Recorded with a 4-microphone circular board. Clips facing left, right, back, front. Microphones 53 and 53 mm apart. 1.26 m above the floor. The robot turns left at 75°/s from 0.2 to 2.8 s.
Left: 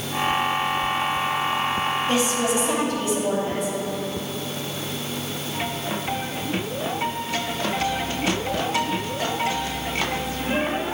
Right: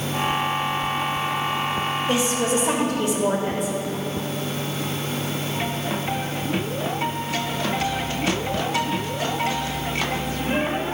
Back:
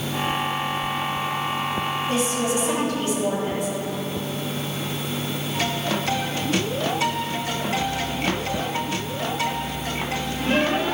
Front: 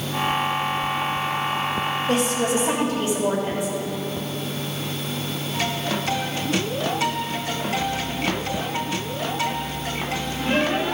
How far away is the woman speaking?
About 2.5 m.